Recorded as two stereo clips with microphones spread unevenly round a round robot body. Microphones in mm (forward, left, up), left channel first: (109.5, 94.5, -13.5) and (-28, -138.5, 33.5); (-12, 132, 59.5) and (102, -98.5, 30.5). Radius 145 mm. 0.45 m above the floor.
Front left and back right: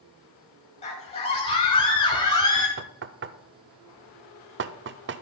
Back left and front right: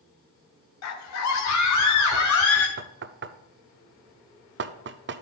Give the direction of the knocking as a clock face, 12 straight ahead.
3 o'clock.